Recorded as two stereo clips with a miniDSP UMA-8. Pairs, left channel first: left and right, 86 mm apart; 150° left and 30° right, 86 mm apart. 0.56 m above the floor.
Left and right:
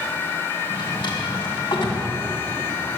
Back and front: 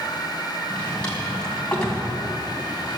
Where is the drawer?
70° left, 3 m.